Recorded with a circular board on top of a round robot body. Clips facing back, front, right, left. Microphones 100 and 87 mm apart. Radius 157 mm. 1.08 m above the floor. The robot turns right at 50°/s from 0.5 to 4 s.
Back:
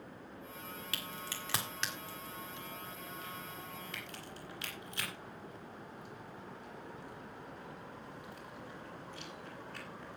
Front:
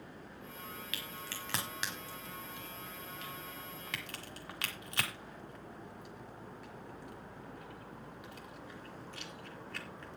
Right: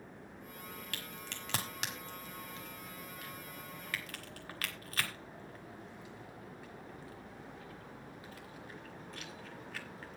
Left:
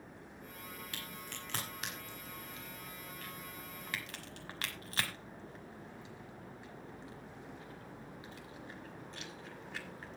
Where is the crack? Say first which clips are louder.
Back 1 dB, right 1 dB; 125° right, 1.2 m; by 10.2 s 30° left, 1.2 m.